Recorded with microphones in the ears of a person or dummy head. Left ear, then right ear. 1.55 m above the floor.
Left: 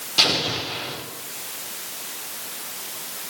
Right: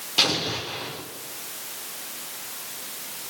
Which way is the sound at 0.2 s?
20° right (ahead or behind).